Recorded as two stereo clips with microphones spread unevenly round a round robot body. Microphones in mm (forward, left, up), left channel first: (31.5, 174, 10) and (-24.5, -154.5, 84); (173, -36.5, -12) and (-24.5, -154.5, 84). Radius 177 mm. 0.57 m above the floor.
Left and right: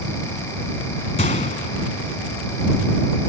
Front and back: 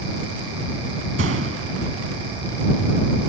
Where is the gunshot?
150° left.